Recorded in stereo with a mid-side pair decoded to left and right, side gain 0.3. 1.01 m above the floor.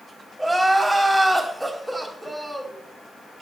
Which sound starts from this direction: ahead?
Crying, at 0.4 s.